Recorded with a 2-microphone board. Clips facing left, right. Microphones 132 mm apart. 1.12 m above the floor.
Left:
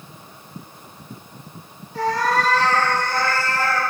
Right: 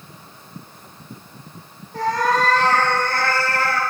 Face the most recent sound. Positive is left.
turn(degrees=-70)  # may be behind; listen again after turning